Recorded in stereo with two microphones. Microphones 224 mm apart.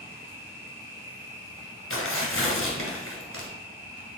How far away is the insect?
About 1.6 m.